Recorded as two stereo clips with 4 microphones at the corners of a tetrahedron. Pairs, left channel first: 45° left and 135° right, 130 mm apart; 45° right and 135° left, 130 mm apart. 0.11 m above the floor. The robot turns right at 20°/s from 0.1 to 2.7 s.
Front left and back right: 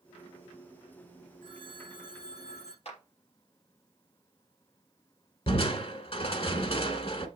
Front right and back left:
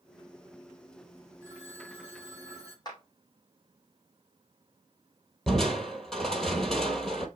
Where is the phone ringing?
5° right, 6.5 m; by 2.8 s 20° left, 6.5 m.